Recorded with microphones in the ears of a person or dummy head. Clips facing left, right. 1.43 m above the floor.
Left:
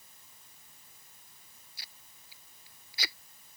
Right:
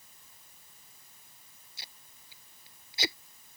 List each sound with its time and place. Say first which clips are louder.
1.8 s tape being pulled: right 4 dB; 25° right (ahead or behind)